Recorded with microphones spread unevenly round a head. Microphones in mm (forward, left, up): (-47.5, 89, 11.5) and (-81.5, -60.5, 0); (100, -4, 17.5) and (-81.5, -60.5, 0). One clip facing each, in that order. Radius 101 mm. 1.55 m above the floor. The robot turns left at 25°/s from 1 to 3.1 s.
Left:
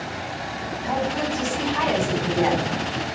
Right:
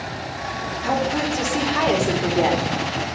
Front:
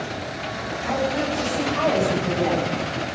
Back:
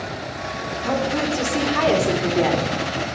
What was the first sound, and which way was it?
A woman speaking, 120° right.